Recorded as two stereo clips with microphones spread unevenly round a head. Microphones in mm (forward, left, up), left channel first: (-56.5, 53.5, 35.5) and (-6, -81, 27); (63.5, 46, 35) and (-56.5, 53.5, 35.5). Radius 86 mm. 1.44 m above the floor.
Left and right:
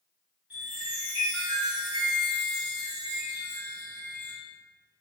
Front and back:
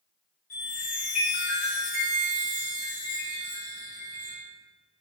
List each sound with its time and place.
0.5 s a chime: 15° left, 1.3 m